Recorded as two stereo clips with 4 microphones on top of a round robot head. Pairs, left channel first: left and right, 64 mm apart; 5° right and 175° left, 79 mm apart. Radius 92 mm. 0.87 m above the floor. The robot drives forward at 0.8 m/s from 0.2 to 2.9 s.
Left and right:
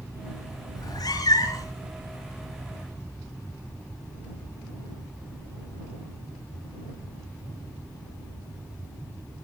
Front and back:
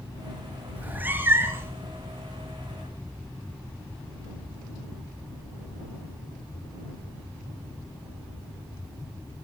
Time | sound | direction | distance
0.8 | a cat meowing | 105° left | 4 m